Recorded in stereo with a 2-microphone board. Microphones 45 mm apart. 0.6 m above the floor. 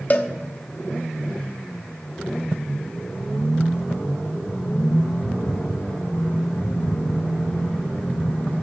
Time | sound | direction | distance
0.1 | a cowbell | 35° left (ahead or behind) | 0.5 m